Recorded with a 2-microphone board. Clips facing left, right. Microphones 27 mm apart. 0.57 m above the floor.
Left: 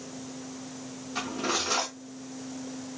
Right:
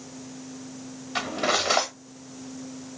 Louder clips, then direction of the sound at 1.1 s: Right 5 dB; 75° right (ahead or behind).